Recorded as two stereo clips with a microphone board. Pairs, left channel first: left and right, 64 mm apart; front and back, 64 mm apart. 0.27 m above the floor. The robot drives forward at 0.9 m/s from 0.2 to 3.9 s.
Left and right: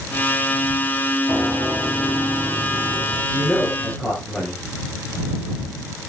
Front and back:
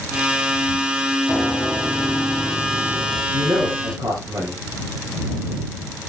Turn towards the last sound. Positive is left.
turn(degrees=165)